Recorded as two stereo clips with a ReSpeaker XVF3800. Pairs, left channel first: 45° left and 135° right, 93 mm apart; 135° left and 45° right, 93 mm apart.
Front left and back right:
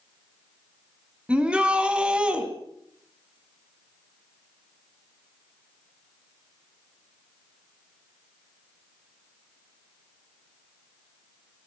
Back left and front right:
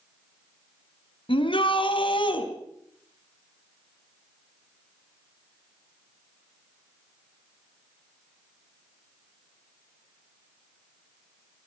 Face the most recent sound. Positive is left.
turn(degrees=145)